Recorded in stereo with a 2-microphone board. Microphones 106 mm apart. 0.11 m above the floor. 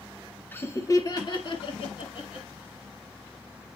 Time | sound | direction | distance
0.5 | laughter | 20° left (ahead or behind) | 1.2 m